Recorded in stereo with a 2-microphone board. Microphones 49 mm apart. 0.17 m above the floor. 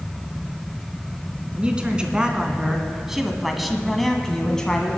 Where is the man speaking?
20° right (ahead or behind), 1.6 m; by 5.0 s 15° left (ahead or behind), 1.2 m.